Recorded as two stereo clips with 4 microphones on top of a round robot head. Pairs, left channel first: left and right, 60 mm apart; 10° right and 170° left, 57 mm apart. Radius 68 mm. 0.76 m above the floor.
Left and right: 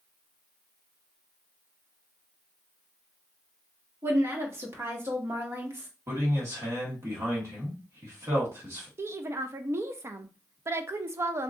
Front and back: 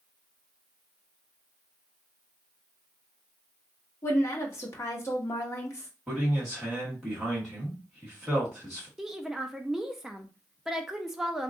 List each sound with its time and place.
4.0 s a woman speaking: 45° right, 1.2 m
6.1 s a man speaking: 95° right, 1.6 m
9.0 s a woman speaking: 105° right, 0.6 m